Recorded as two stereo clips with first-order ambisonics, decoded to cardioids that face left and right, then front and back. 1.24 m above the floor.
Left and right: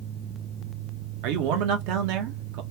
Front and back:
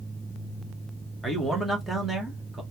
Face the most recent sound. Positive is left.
turn(degrees=-95)